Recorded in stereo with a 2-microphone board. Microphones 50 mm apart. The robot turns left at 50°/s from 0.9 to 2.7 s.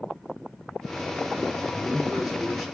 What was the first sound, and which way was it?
A man speaking, 20° right (ahead or behind).